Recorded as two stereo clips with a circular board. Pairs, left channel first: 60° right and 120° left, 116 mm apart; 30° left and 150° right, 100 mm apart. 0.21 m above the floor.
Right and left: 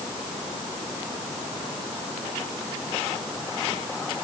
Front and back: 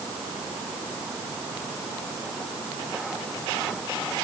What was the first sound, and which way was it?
Only background noise.